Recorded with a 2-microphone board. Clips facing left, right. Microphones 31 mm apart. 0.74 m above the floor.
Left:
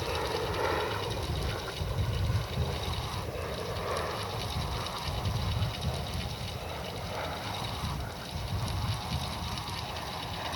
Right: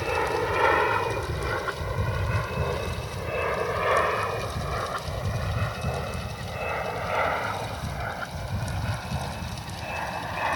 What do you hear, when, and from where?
0.0 s an aircraft: 50° right (ahead or behind); by 10.6 s 70° right (ahead or behind)